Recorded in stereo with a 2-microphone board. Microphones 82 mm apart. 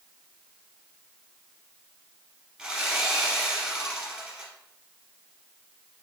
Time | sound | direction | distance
2.6 | sawing | 15° right (ahead or behind) | 1.5 m